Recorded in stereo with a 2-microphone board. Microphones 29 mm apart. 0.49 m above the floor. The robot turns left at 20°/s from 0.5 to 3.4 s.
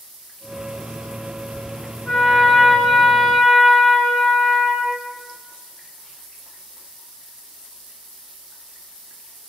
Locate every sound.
2.1 s a trumpet: 45° left (ahead or behind), 1.7 m; by 5.0 s 35° left (ahead or behind), 1.7 m